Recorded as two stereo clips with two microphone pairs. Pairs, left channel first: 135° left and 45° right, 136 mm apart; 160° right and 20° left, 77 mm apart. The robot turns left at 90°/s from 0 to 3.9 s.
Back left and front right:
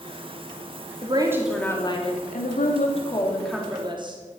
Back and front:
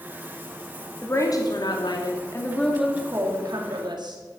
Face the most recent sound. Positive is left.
turn(degrees=5)